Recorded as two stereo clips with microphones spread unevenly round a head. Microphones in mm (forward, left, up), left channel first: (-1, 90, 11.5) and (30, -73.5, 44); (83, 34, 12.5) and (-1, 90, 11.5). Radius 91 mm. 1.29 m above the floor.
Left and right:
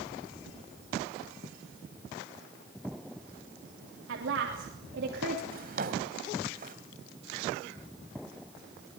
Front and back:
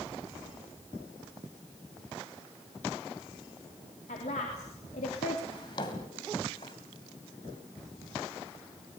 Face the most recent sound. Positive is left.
turn(degrees=-80)